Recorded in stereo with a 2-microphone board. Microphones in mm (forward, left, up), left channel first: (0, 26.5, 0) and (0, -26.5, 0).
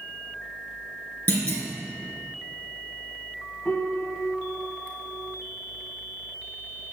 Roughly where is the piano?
Centre.